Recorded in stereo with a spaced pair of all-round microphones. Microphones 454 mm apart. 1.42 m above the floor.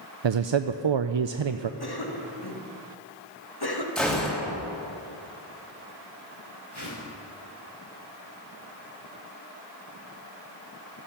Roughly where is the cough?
Left.